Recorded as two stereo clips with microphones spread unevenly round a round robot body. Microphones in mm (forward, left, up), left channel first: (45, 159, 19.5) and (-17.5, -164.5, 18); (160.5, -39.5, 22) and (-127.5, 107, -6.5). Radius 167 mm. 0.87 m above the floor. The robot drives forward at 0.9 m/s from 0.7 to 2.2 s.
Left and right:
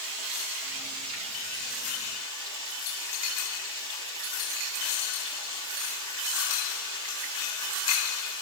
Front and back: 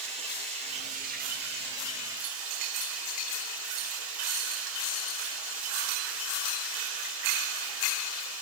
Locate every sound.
0.0 s running water: 135° right, 2 m; by 8.4 s 155° right, 3 m